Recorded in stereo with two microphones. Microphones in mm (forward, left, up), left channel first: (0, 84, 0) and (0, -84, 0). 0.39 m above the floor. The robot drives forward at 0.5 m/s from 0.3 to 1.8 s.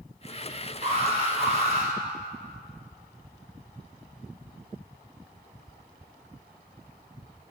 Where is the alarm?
40° right (ahead or behind), 4 m; by 1.9 s 45° right (ahead or behind), 3.5 m.